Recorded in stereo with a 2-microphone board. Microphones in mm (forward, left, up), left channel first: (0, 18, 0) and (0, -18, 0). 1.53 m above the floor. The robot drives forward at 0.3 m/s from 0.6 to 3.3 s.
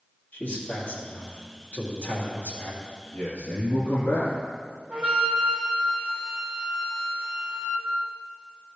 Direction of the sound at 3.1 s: 70° left (ahead or behind).